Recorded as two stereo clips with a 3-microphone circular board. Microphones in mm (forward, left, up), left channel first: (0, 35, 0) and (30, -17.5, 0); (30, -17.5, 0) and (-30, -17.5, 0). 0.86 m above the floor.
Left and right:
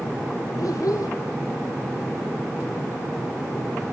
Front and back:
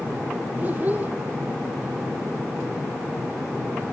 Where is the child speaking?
125° left, 1.9 m.